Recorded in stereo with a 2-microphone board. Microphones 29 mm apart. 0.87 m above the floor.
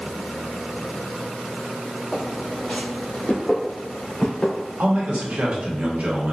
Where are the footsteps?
30° left (ahead or behind), 1.7 m; by 5.4 s 40° left (ahead or behind), 3.5 m.